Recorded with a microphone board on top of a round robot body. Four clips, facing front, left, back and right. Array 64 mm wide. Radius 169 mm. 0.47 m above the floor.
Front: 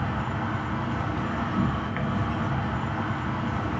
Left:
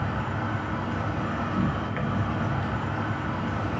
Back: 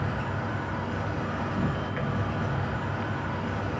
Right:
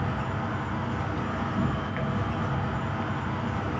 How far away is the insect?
About 2 m.